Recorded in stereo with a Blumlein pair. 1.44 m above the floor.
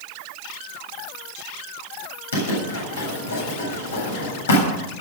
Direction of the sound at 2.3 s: 70° left.